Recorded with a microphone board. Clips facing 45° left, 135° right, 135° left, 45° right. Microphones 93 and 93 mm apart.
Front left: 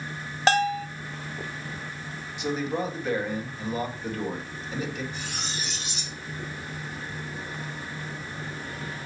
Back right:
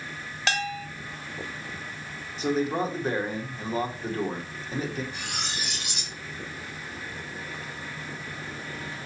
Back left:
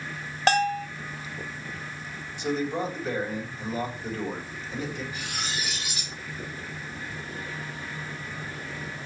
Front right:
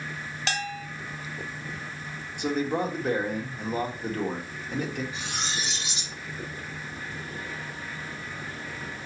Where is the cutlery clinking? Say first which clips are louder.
Even, even; 110° right, 1.3 m.